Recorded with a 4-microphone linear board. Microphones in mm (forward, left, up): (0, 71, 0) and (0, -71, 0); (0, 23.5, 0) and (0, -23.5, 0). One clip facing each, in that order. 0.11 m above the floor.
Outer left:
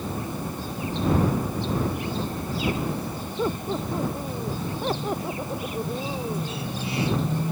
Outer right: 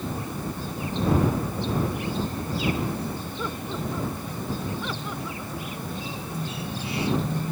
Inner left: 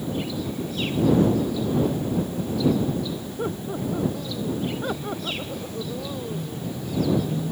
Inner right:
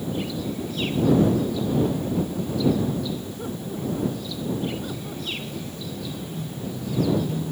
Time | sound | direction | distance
3.4 | laughter | 30° left (ahead or behind) | ?